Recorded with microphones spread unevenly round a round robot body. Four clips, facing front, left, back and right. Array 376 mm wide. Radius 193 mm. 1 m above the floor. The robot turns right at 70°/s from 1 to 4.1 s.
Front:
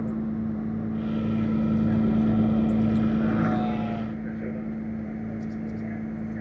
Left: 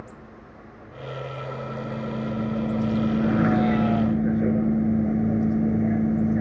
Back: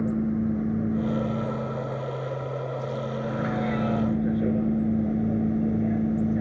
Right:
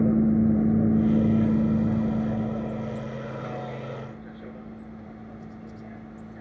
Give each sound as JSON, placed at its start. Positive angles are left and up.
{"t": 0.0, "sound": "a vehicle", "azimuth_deg": -100}